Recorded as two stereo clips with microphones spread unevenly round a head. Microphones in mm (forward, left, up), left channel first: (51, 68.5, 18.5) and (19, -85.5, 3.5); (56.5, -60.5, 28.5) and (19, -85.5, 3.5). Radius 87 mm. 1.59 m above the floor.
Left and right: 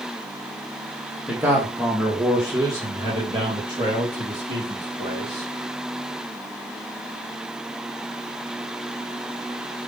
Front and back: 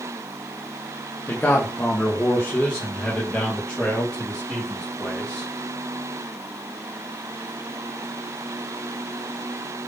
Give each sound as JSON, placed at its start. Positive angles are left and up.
{"t": 1.3, "sound": "a man speaking", "azimuth_deg": -20, "distance_m": 1.4}